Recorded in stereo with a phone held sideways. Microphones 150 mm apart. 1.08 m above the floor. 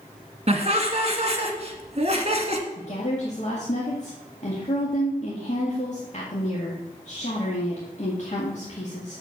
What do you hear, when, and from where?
0.5 s laughter: 45° right (ahead or behind), 1.7 m
2.8 s a woman speaking: 50° left (ahead or behind), 1.9 m